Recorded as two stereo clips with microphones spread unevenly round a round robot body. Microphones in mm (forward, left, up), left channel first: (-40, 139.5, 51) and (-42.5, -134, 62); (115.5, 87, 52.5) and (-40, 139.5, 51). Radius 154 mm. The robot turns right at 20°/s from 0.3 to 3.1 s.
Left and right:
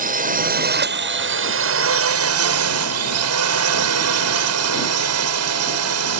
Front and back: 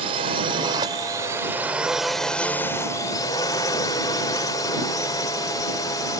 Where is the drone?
145° right; by 6.2 s 90° right.